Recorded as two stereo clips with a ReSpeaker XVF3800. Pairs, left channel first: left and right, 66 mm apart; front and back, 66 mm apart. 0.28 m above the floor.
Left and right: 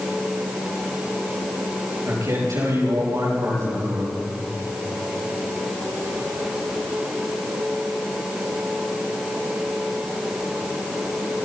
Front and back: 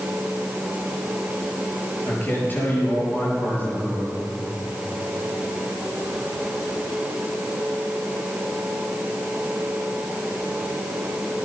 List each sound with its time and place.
2.0 s a man speaking: 60° right, 7 m